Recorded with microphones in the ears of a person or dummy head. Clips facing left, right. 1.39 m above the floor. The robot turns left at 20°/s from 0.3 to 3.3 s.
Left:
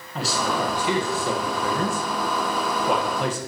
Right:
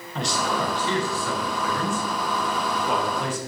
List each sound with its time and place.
0.1 s a man speaking: 175° left, 1.6 m; by 3.4 s 115° left, 1.6 m